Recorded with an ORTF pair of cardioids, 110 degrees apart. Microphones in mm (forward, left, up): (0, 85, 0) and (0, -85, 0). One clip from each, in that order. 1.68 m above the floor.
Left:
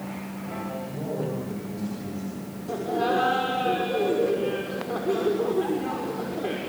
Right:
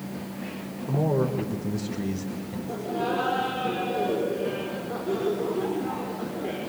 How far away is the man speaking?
About 6.5 m.